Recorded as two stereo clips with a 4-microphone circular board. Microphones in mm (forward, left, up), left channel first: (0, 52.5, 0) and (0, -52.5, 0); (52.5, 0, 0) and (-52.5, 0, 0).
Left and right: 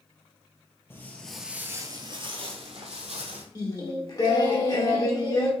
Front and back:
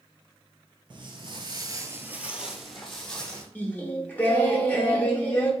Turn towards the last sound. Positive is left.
turn(degrees=65)